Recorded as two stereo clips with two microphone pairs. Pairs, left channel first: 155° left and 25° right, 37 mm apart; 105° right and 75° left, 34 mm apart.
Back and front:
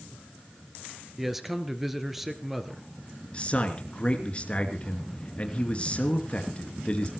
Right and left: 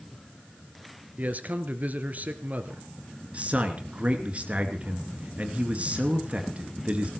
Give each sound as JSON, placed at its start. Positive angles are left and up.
{"t": 1.2, "sound": "a man speaking", "azimuth_deg": 55, "distance_m": 1.9}
{"t": 3.3, "sound": "a man speaking", "azimuth_deg": 105, "distance_m": 2.5}